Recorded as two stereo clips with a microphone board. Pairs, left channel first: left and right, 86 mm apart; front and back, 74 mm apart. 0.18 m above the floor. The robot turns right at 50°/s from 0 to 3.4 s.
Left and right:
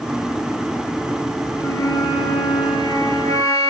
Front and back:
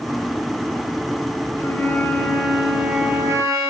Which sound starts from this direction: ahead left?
A flute, at 1.6 s.